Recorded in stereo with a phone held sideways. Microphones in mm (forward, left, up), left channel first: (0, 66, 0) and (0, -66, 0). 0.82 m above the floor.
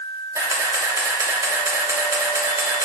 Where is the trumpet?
No trumpet in this recording.